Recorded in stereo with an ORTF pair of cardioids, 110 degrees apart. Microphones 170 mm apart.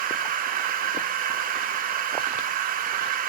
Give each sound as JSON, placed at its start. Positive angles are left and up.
{"t": 0.0, "sound": "a machine running", "azimuth_deg": -55, "distance_m": 0.7}